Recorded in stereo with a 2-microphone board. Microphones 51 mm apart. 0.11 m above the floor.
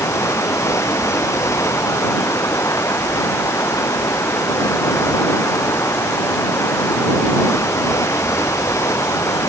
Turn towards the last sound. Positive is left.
turn(degrees=80)